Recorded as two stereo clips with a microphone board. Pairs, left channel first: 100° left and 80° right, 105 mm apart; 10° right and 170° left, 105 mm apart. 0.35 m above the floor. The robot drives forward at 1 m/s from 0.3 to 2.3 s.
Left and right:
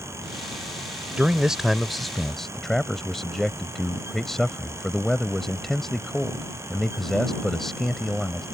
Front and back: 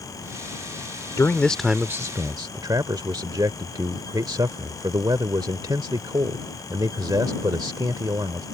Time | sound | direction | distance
1.2 | a man speaking | 10° right | ?